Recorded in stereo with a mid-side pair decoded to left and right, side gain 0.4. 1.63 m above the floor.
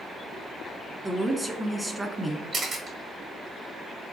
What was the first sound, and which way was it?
A woman speaking, 15° right.